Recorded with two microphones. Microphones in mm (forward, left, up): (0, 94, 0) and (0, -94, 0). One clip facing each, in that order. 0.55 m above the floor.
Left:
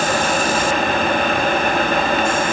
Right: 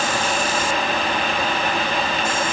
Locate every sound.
Only background noise.